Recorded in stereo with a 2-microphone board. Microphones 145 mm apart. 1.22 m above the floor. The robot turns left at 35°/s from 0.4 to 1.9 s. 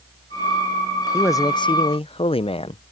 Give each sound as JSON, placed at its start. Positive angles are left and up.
{"t": 1.1, "sound": "a man speaking", "side_deg": 20}